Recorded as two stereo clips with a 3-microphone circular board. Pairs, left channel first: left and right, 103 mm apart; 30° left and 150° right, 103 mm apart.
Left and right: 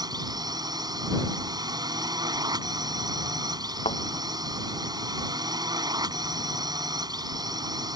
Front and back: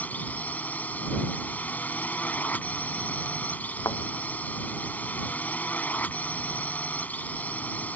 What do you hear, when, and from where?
0.0 s a drone: 45° right
3.9 s a thud: 90° left